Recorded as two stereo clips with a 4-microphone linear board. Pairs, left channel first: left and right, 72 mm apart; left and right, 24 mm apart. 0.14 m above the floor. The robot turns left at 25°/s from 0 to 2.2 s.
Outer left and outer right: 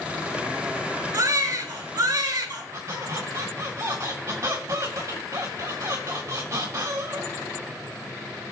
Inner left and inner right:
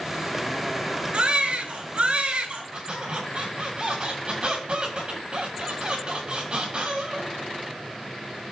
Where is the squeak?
50° right (ahead or behind), 2 m.